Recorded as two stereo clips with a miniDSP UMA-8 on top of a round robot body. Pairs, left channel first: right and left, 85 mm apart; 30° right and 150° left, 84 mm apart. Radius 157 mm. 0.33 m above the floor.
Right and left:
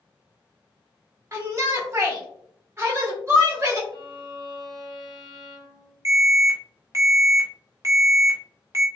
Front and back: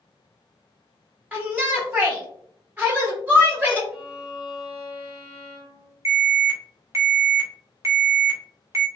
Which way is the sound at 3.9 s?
90° left.